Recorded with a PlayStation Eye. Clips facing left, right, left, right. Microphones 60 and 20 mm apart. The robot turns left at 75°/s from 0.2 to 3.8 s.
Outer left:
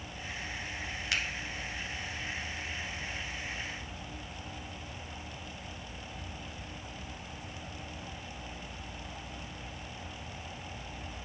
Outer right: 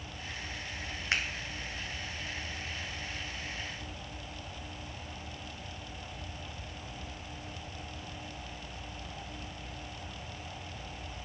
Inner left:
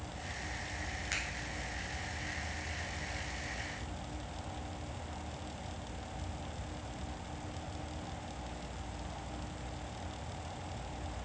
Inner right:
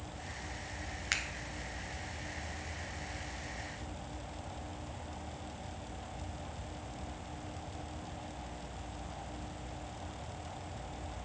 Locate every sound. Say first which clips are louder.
1.1 s a finger snap: outer right 2 dB, inner right 3 dB; 35° right (ahead or behind), 1.0 m